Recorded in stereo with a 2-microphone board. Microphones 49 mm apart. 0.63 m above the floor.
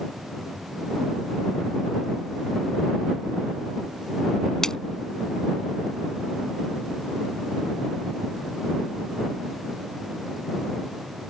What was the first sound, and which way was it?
A splash, 15° left (ahead or behind).